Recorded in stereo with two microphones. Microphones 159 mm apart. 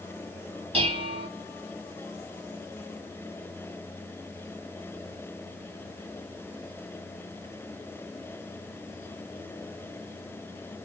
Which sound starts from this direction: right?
Dishes clattering, at 0.7 s.